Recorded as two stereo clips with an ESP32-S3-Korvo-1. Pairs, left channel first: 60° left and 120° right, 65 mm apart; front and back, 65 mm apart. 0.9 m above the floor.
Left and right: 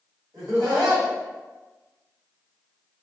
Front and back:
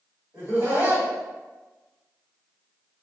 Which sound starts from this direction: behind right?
Laughter, at 0.3 s.